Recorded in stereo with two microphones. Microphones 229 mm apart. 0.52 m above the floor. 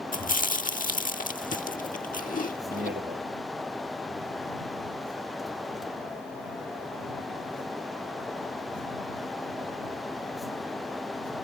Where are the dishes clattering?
No dishes clattering in this recording.